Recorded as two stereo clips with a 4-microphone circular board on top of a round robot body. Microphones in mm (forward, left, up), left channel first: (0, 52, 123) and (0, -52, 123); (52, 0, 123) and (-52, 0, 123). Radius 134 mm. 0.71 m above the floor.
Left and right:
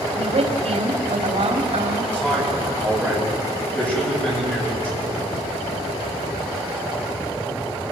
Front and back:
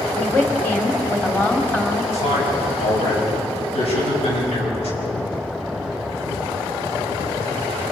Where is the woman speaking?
75° right, 2.5 m.